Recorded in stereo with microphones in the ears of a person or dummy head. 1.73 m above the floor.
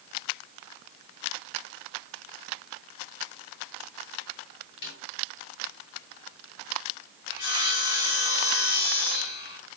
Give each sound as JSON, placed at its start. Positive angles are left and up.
{"t": 4.8, "sound": "a snare drum", "side_deg": 55, "distance_m": 7.0}
{"t": 7.3, "sound": "sawing", "side_deg": 60, "distance_m": 4.5}